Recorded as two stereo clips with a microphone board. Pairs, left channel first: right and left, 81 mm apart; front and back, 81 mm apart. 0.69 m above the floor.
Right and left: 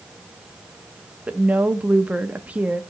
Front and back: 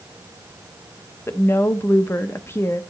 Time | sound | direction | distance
1.3 | a woman speaking | 30° left | 0.7 m